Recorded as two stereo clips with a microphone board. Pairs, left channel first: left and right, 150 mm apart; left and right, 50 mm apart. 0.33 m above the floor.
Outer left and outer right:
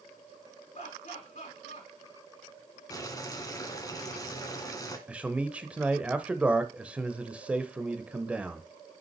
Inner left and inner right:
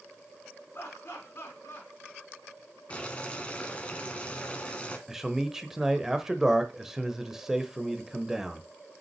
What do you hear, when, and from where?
0.7 s laughter: 45° left (ahead or behind), 3.5 m
2.9 s boiling: 25° left (ahead or behind), 1.6 m
5.1 s a man speaking: 10° right (ahead or behind), 0.9 m